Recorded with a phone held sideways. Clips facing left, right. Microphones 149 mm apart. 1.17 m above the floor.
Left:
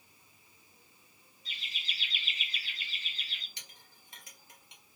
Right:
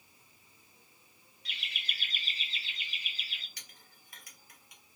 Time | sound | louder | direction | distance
1.4 | laughter | right 1 dB | 70° right (ahead or behind) | 0.5 m
3.6 | a clink | left 1 dB | 25° left (ahead or behind) | 0.9 m